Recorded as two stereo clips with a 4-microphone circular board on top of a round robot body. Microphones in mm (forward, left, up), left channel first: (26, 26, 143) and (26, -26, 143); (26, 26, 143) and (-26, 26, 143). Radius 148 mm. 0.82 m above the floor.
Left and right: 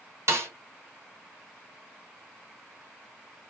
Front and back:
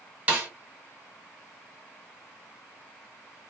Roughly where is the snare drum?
Behind right.